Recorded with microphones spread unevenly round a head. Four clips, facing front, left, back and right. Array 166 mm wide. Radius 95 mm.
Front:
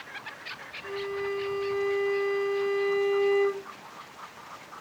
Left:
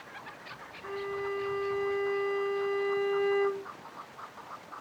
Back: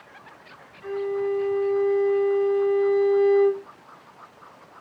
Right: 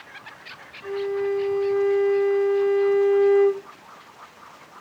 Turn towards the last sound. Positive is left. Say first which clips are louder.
# right 10 dB, back 7 dB
turn(degrees=-125)